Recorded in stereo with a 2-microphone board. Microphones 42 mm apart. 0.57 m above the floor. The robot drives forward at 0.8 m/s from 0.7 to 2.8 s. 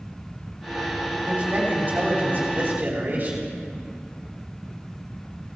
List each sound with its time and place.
1.2 s a man speaking: 30° right (ahead or behind), 4.5 m; by 3.5 s 40° right (ahead or behind), 3.5 m